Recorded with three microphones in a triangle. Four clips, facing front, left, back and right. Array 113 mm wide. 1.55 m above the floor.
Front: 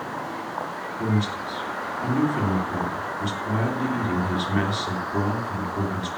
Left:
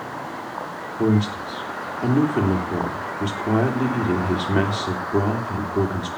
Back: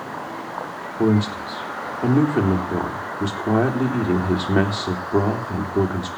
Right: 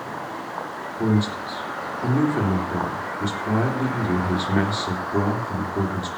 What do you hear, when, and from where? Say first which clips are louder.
1.0 s a man speaking: left 2 dB, back 7 dB; 160° left, 3.5 m